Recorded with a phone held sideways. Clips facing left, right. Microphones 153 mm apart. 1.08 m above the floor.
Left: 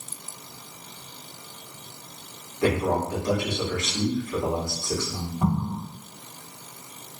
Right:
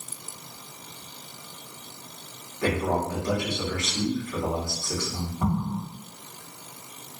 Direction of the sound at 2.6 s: 20° left (ahead or behind).